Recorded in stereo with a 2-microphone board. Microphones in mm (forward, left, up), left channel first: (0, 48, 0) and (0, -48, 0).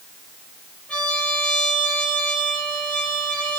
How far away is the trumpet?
About 4 m.